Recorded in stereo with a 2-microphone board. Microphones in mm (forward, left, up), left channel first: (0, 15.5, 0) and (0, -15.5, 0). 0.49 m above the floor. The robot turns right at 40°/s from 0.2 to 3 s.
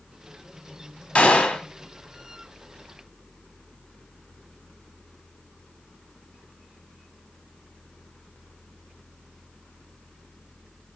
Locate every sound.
1.1 s a gunshot: 40° left (ahead or behind), 1.5 m; by 1.6 s 30° left (ahead or behind), 1.5 m